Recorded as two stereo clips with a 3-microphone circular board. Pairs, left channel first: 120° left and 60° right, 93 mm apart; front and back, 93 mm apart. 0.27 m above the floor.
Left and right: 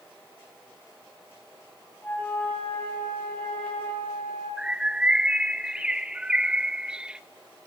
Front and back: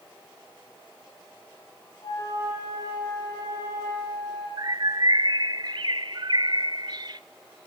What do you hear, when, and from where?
2.0 s a flute: 50° left, 7.5 m
4.6 s a bird: 140° right, 0.5 m